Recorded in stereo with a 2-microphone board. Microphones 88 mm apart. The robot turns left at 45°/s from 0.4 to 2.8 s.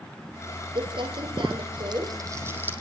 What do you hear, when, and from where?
0.8 s crumpling: 60° right (ahead or behind), 4.5 m; by 2.7 s 20° right (ahead or behind), 4.5 m